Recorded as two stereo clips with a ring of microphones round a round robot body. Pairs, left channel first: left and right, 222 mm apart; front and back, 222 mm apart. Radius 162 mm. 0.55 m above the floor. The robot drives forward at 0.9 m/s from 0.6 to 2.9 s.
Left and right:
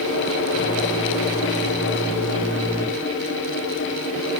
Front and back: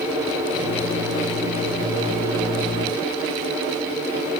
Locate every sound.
Only background noise.